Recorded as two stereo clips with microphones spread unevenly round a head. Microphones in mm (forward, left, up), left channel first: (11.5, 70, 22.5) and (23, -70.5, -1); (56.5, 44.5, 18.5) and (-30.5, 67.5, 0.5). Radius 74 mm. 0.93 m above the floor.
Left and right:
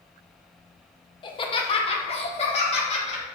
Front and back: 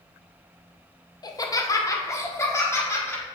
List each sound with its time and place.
1.2 s laughter: 35° left, 0.7 m; by 3.2 s 50° left, 1.7 m